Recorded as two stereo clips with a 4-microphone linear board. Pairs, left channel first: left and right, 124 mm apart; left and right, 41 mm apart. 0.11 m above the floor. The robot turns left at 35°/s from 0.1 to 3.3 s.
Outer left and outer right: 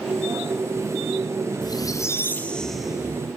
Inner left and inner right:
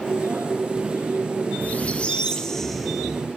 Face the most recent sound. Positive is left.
turn(degrees=-20)